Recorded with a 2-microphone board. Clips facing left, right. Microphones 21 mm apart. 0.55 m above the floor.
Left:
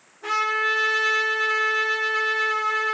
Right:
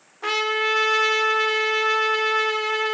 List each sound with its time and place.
0.2 s a trumpet: 55° right (ahead or behind), 0.7 m